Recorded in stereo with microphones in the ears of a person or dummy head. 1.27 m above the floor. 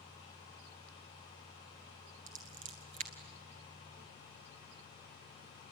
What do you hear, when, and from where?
2.3 s scissors: 35° right (ahead or behind), 1.4 m